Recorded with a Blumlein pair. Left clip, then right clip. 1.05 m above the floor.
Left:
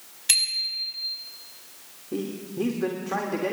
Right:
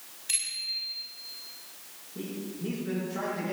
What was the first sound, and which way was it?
A bicycle bell, 30° left.